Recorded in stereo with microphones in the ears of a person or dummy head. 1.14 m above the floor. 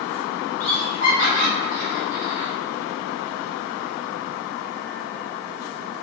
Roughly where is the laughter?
Left.